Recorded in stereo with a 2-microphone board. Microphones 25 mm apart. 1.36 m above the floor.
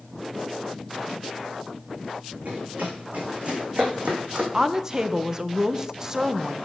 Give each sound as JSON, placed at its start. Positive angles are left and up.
{"t": 2.5, "sound": "running footsteps", "side_deg": -65, "distance_m": 3.5}
{"t": 4.5, "sound": "a woman speaking", "side_deg": -20, "distance_m": 0.5}